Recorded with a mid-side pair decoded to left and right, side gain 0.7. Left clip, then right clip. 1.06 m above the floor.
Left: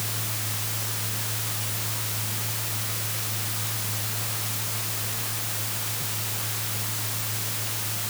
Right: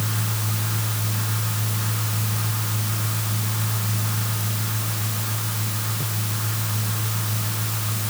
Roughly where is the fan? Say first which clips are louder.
Right 3 dB; ahead right.